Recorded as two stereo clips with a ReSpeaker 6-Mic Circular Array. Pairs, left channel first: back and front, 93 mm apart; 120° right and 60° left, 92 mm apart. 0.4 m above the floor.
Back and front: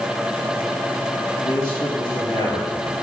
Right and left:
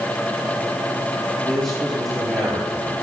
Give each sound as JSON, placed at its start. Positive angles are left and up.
{"t": 1.4, "sound": "a man speaking", "azimuth_deg": 150, "distance_m": 5.5}